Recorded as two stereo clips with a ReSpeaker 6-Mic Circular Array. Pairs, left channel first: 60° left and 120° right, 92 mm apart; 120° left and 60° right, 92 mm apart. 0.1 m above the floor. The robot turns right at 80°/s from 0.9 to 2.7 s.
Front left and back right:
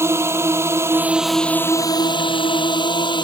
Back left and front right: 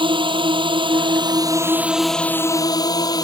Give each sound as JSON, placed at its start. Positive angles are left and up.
{"t": 0.0, "sound": "a drone", "azimuth_deg": -65}